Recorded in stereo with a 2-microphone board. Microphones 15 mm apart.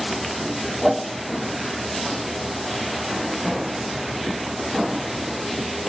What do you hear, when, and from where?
0.8 s a whoosh: 15° right (ahead or behind), 1.0 m